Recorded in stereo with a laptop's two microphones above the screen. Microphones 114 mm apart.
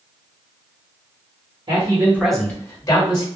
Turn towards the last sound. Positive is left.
turn(degrees=40)  # may be behind; listen again after turning